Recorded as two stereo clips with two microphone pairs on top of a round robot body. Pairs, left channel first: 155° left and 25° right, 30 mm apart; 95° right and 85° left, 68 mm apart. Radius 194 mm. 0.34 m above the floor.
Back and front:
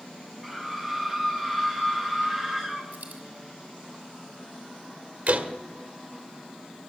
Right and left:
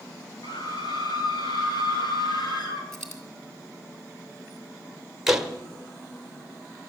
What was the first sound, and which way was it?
A scream, 105° right.